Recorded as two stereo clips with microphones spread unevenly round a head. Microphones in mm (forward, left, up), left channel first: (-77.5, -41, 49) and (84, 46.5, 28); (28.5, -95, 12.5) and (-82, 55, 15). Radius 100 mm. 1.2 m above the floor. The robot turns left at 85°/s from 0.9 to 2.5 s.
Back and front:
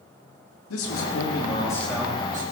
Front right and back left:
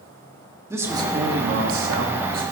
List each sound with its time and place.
0.7 s a man speaking: 160° right, 2.5 m; by 2.4 s 70° left, 2.5 m